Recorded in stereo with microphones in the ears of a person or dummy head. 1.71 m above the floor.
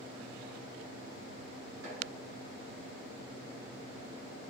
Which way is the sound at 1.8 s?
70° right (ahead or behind).